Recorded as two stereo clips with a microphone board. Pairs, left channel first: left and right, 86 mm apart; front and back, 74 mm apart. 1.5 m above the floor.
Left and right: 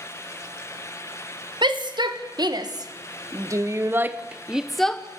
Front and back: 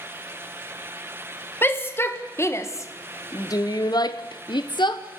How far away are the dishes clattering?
I don't hear dishes clattering.